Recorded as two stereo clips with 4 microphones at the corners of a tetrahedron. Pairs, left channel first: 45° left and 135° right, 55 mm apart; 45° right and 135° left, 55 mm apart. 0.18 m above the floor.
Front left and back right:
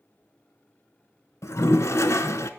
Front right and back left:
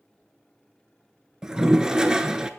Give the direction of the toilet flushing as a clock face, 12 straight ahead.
10 o'clock.